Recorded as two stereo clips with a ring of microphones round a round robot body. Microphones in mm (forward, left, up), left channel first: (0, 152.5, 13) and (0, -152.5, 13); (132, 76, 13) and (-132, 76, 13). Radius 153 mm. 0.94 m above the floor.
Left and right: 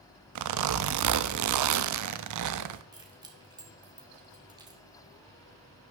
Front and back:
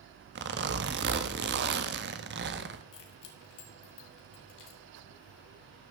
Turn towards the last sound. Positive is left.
turn(degrees=-15)